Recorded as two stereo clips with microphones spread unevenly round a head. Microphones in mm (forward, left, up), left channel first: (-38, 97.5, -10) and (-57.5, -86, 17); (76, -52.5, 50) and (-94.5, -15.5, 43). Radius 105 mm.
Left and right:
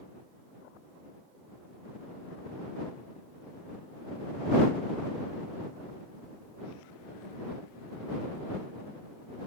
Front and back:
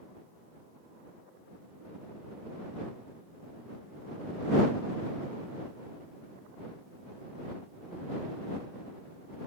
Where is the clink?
I don't hear a clink.